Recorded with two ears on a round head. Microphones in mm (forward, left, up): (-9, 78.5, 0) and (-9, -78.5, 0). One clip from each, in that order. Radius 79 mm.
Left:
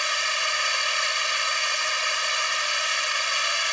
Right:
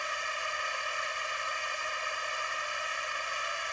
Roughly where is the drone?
Left.